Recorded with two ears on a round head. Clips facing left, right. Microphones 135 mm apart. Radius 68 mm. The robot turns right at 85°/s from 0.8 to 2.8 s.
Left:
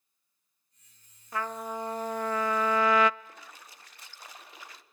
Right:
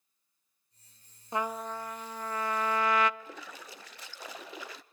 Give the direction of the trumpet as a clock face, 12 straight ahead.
1 o'clock.